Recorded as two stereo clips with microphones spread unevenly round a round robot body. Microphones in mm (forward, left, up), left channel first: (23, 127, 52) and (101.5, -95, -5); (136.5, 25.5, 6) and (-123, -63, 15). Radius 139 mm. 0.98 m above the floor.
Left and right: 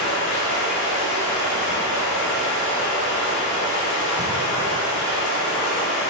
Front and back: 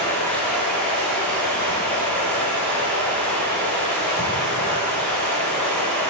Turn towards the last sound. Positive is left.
turn(degrees=105)